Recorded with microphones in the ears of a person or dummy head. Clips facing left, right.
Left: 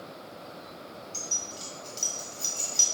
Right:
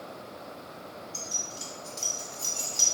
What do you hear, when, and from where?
1.1 s keys jangling: 20° left (ahead or behind), 1.8 m